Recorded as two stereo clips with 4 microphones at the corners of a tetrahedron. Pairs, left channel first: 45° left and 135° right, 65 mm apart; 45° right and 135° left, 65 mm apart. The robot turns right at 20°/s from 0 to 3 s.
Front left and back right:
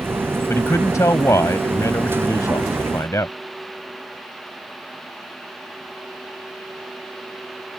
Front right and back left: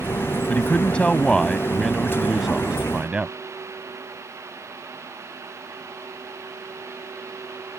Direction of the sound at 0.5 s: 15° left.